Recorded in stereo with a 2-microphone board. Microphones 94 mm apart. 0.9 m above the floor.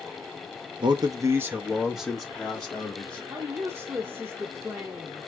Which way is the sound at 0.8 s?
55° right (ahead or behind).